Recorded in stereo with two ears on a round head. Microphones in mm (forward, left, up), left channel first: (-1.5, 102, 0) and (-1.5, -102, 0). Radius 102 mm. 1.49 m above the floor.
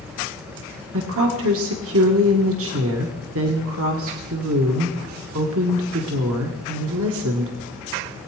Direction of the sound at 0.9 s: 65° right (ahead or behind).